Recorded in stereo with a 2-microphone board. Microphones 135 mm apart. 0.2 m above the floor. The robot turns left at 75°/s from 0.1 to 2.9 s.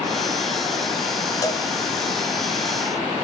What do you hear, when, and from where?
1.4 s a cowbell: 25° left (ahead or behind), 0.6 m; by 1.7 s 40° left (ahead or behind), 0.6 m